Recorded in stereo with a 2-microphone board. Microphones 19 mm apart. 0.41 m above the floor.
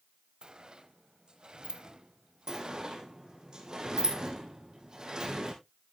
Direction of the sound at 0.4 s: 50° right (ahead or behind).